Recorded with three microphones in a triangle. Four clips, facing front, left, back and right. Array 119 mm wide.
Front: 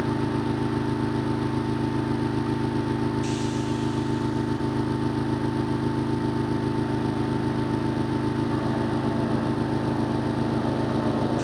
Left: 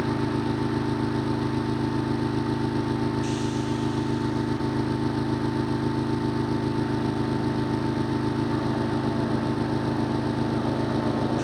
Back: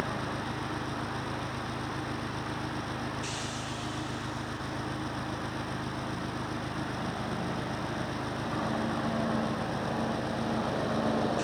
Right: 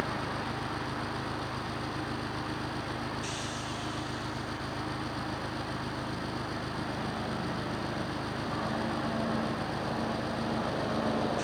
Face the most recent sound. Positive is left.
turn(degrees=45)